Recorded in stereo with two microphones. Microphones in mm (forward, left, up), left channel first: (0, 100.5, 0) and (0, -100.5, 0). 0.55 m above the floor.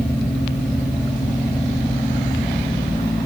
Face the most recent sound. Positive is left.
No sound to turn to.